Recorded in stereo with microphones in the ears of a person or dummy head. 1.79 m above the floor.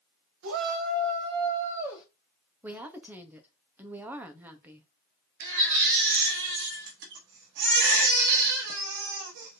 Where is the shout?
65° right (ahead or behind), 1.7 m; by 2.0 s 5° right (ahead or behind), 1.7 m.